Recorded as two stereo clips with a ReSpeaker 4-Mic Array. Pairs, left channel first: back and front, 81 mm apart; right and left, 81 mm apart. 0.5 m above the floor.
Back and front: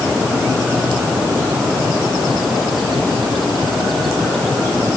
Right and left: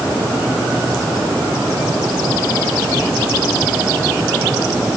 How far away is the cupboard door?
I don't hear a cupboard door.